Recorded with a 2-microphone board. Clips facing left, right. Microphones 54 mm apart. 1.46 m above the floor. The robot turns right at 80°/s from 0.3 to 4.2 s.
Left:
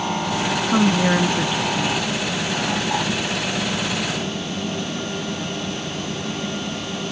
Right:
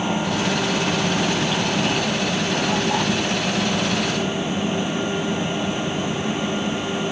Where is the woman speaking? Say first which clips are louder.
Left 4 dB; 95° left; by 2.1 s 155° right.